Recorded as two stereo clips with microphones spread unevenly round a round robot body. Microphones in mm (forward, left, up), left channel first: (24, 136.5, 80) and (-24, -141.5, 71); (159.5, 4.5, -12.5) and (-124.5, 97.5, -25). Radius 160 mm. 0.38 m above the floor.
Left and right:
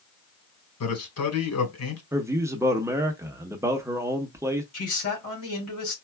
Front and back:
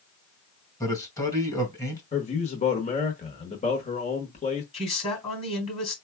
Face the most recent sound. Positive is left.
turn(degrees=50)